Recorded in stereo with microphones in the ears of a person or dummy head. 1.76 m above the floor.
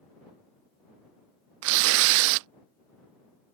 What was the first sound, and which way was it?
Tearing paper, 75° right (ahead or behind).